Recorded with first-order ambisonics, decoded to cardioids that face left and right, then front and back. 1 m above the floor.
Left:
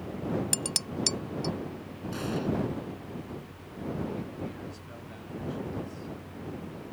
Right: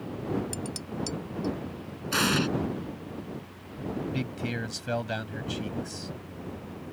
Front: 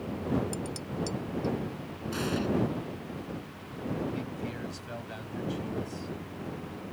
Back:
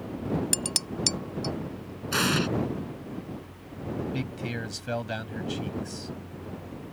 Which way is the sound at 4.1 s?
125° right.